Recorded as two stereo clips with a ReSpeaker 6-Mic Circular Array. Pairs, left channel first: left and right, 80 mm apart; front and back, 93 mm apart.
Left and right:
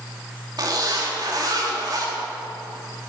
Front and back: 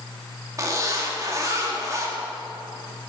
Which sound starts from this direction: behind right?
A zipper, at 0.6 s.